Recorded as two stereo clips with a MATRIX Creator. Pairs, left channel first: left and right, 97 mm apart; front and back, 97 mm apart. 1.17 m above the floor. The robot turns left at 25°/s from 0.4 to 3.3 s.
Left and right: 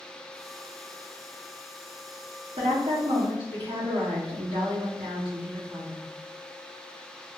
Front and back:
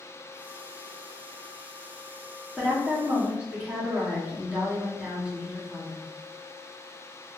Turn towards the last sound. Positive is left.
turn(degrees=-105)